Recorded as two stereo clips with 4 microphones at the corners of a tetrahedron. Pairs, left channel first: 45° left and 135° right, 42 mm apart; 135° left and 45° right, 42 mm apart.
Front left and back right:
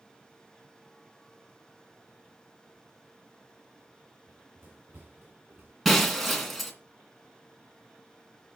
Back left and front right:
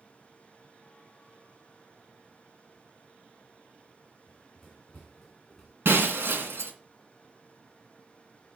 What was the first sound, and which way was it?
Running footsteps, 140° right.